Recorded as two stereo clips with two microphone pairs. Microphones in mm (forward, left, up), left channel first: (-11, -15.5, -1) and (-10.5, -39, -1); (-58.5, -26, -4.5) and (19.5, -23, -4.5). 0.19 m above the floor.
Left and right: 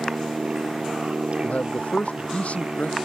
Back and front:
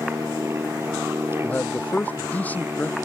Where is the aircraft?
50° right; by 3.1 s 55° right.